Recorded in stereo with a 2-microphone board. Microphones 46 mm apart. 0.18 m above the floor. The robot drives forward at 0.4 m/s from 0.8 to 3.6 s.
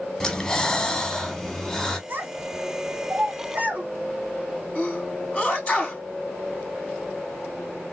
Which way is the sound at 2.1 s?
40° right (ahead or behind).